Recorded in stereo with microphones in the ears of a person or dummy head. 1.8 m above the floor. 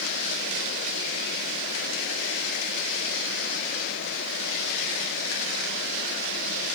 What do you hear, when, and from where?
Only background noise.